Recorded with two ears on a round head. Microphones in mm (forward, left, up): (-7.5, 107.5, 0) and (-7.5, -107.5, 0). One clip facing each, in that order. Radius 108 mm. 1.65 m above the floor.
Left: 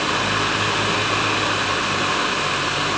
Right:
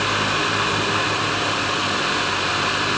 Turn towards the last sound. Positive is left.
No sound to turn to.